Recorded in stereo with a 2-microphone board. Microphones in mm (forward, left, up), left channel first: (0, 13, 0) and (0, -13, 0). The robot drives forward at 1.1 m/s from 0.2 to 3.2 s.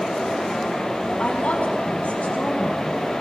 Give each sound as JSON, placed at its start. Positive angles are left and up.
{"t": 1.2, "sound": "a woman speaking", "side_deg": 60, "distance_m": 3.0}